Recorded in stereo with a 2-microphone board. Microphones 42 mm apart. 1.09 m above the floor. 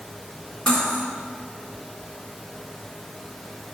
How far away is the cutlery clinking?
About 1.8 m.